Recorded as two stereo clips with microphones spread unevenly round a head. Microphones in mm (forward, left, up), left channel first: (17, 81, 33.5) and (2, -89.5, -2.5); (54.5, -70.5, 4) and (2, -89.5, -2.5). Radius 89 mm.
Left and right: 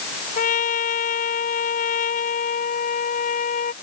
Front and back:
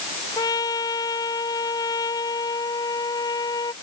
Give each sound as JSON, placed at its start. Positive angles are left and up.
{"t": 0.4, "sound": "a trumpet", "azimuth_deg": 40}